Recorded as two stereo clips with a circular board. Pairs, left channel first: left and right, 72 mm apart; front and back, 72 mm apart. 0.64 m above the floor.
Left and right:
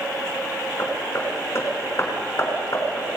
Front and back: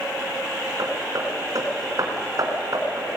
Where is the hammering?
145° left, 4 m.